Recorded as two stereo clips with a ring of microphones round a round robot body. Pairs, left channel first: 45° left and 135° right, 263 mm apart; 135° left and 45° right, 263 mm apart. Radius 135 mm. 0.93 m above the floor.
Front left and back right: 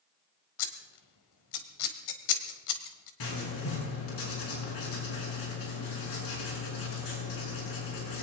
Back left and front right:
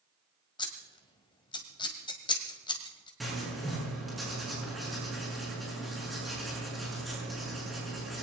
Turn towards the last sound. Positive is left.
turn(degrees=45)